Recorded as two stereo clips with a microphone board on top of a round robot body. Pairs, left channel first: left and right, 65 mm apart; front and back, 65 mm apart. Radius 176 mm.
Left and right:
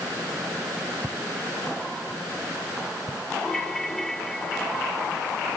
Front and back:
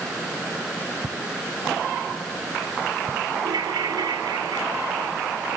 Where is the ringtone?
175° left.